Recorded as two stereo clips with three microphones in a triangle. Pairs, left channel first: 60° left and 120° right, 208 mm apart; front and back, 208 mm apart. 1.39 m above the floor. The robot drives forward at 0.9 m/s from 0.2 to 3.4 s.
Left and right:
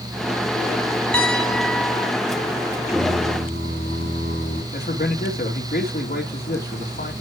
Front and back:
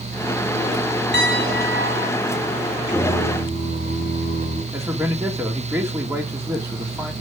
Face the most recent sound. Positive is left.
turn(degrees=105)